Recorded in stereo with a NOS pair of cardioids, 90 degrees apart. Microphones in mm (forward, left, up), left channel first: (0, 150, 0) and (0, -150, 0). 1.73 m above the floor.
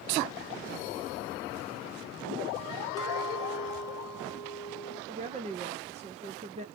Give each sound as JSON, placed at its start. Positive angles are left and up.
{"t": 3.0, "sound": "a clink", "azimuth_deg": -10, "distance_m": 2.0}
{"t": 5.1, "sound": "a woman speaking", "azimuth_deg": -20, "distance_m": 0.9}